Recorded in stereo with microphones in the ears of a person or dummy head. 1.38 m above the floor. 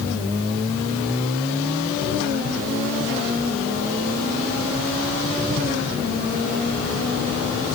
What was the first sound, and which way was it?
Only background noise.